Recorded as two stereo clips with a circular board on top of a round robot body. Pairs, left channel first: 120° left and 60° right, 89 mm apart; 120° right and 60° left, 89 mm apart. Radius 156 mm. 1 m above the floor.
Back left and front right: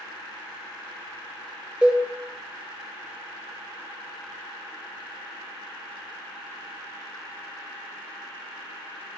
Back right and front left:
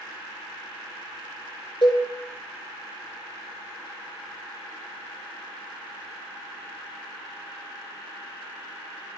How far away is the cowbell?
About 0.7 m.